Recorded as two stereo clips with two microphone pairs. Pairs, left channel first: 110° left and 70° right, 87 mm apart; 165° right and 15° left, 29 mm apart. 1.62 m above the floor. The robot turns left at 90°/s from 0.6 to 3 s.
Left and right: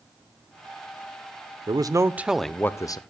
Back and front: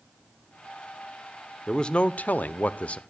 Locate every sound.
1.7 s a man speaking: 90° right, 0.7 m; by 3.0 s 145° left, 0.7 m